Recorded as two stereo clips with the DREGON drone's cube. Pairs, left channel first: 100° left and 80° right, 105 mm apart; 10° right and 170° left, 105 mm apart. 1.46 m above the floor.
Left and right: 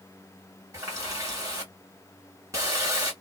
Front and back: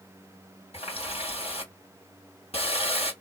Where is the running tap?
15° right, 1.8 m.